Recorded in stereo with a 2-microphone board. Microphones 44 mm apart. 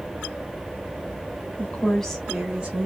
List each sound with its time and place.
1.6 s a woman speaking: 35° left (ahead or behind), 1.2 m; by 2.9 s 35° right (ahead or behind), 1.3 m